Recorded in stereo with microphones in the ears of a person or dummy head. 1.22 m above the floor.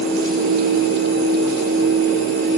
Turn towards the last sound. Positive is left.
No sound to turn to.